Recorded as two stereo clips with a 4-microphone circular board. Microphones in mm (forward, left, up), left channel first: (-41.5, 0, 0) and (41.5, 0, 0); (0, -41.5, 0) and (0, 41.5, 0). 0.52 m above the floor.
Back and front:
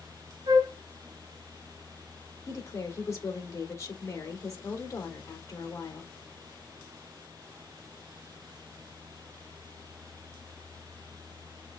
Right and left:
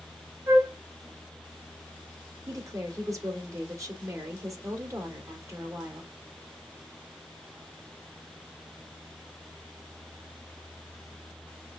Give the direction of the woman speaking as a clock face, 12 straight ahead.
8 o'clock.